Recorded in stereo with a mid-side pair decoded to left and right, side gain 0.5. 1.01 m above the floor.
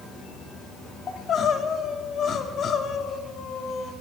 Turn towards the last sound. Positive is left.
turn(degrees=50)